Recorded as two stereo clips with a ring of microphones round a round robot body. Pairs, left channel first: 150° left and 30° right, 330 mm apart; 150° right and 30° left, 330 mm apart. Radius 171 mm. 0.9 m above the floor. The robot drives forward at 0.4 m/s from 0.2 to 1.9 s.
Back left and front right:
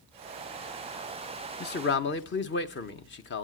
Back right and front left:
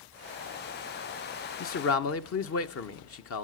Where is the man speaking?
170° right, 0.8 m.